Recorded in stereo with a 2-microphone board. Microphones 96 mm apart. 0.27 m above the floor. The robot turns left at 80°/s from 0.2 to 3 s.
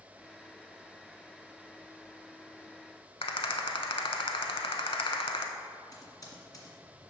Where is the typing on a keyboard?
40° left (ahead or behind), 1.8 m.